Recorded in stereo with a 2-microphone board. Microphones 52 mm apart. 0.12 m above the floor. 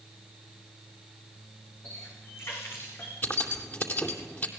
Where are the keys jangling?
40° left (ahead or behind), 2.5 m.